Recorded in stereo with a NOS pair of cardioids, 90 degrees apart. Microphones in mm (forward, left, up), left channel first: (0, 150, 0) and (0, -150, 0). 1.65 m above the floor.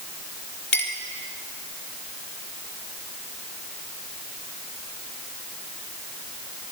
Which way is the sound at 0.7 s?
40° left.